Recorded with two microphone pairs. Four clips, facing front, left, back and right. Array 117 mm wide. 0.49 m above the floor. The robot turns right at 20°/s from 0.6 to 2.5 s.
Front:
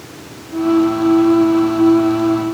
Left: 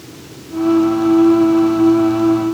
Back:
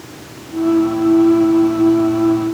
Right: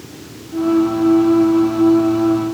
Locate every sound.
Only background noise.